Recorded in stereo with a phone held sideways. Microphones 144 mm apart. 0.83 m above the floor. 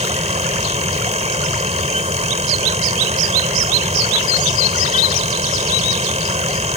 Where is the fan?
50° right (ahead or behind).